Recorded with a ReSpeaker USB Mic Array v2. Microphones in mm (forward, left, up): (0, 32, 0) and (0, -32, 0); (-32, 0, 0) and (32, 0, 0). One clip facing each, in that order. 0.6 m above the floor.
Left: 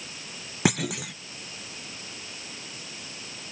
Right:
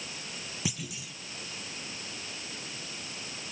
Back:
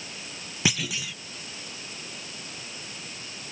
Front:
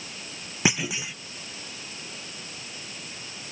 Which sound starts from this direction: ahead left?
A clunk, at 0.7 s.